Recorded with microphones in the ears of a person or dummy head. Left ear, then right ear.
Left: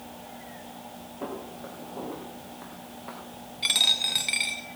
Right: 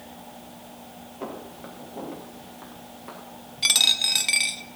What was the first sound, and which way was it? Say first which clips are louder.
Footsteps: even; 20° right (ahead or behind).